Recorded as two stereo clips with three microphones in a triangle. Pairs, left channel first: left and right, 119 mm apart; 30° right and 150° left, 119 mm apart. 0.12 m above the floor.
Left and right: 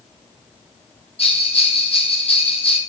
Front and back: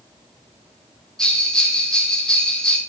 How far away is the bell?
About 6 m.